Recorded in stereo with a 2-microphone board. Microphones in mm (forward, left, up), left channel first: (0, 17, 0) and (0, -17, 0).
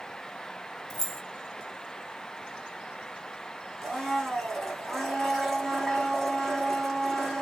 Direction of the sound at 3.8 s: 5° left (ahead or behind).